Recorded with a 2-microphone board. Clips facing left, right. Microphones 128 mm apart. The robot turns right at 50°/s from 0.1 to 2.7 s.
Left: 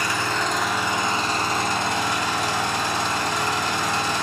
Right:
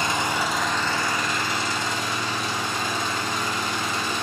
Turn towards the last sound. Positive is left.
turn(degrees=105)